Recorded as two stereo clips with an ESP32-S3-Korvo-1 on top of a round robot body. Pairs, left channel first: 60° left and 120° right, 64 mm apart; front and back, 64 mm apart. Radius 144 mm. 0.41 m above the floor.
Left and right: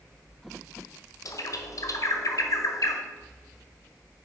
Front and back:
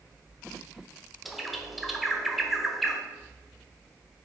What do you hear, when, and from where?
1.2 s a bird: 90° left, 1.6 m